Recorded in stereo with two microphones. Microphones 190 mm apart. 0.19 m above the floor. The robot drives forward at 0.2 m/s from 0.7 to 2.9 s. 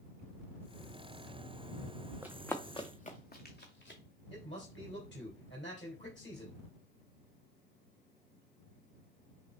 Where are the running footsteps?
10° right (ahead or behind), 0.7 m; by 4.0 s 65° left (ahead or behind), 1.7 m.